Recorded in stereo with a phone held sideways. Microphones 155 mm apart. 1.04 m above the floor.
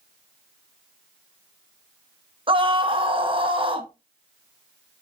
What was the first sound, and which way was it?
A scream, 35° right (ahead or behind).